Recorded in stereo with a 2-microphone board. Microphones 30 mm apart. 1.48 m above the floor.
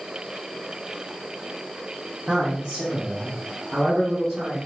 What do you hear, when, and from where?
2.3 s a man speaking: 25° right (ahead or behind), 0.8 m; by 4.6 s 10° right (ahead or behind), 2 m